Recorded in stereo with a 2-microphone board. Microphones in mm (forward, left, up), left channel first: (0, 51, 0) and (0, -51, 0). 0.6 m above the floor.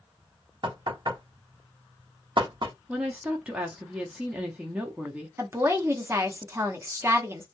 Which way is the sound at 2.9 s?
10° right (ahead or behind).